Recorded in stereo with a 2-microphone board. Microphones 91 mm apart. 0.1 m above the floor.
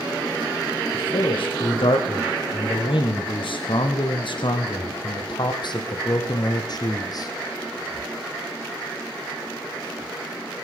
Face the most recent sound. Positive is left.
turn(degrees=45)  # may be behind; listen again after turning